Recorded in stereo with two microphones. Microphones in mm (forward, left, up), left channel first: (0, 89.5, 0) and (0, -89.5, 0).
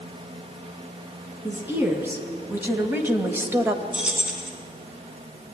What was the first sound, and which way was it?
A woman speaking, 10° right (ahead or behind).